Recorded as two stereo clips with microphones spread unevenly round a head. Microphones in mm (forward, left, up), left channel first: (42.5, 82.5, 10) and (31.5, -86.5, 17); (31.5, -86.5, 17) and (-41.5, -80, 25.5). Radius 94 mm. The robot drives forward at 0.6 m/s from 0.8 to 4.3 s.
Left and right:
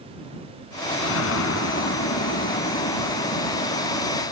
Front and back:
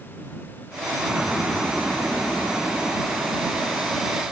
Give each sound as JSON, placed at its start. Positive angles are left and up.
{"t": 1.0, "sound": "an explosion", "azimuth_deg": 90}